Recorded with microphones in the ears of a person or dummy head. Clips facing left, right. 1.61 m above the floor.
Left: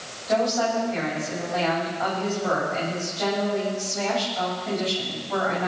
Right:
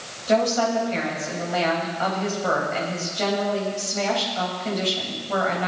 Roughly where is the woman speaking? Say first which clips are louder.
Right 2 dB; right.